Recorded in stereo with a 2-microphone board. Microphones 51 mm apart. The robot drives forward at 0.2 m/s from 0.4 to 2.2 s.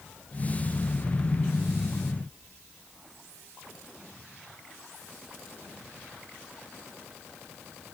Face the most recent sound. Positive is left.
No sound to turn to.